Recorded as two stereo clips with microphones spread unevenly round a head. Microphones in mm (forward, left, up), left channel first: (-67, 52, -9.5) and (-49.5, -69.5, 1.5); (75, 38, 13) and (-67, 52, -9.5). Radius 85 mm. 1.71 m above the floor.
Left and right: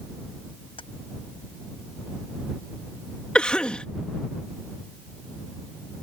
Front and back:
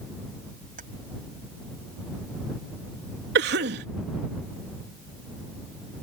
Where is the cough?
Straight behind.